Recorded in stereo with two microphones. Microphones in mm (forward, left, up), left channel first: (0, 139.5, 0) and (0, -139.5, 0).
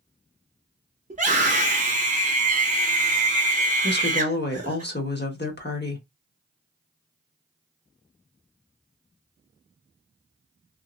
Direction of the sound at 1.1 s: 25° right (ahead or behind).